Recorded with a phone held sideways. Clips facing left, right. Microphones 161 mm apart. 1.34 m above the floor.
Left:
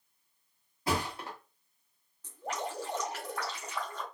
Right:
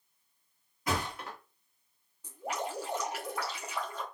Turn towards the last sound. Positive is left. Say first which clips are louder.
# right 1 dB
turn(degrees=-10)  # may be behind; listen again after turning